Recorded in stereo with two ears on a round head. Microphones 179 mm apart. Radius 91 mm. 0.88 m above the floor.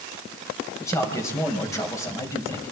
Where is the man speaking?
15° left (ahead or behind), 5 m.